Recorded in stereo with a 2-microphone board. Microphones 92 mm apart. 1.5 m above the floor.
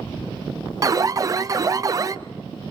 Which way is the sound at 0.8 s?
35° right (ahead or behind).